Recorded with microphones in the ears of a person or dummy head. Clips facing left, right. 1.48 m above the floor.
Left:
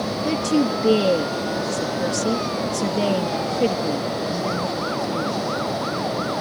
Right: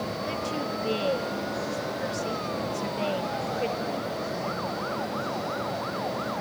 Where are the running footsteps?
I don't hear running footsteps.